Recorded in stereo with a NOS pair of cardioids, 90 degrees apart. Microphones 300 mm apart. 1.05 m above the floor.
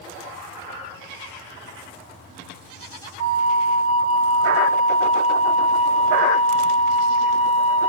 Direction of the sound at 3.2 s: 55° right.